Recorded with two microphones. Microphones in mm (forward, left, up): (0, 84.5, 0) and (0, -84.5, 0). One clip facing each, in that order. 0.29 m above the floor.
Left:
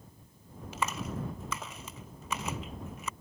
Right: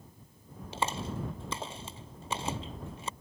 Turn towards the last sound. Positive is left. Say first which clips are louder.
# right 1 dB
turn(degrees=-30)  # may be behind; listen again after turning